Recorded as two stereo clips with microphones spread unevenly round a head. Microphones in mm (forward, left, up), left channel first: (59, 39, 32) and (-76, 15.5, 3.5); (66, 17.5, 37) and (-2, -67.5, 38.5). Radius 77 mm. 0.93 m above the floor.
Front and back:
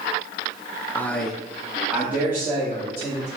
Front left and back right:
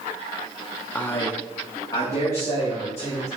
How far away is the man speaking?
About 0.6 m.